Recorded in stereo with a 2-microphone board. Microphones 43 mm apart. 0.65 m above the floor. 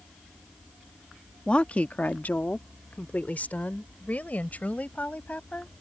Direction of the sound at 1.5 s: 25° left (ahead or behind).